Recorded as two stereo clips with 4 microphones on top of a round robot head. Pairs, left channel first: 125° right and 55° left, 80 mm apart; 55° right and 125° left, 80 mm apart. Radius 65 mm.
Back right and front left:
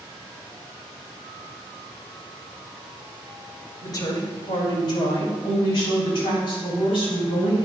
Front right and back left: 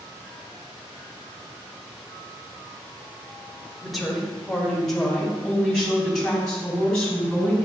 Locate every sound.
3.8 s a woman speaking: 145° right, 1.4 m; by 7.7 s 135° right, 4.5 m